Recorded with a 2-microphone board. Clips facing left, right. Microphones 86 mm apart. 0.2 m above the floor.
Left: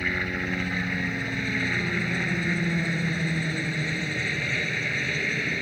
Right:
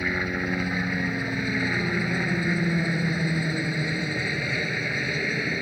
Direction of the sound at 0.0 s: 15° right (ahead or behind).